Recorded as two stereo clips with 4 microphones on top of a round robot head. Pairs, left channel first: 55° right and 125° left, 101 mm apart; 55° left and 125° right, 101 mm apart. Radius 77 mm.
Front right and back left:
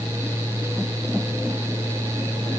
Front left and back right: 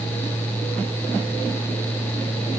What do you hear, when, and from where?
Only background noise.